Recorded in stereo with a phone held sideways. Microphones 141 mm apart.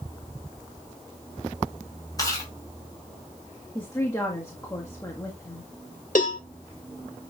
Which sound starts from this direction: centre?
A woman speaking, at 3.8 s.